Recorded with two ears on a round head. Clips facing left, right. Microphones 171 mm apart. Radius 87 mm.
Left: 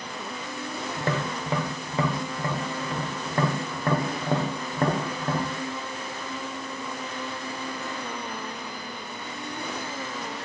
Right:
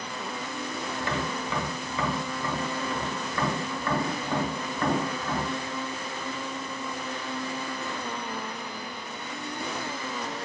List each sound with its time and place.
1.0 s tapping: 30° left (ahead or behind), 0.6 m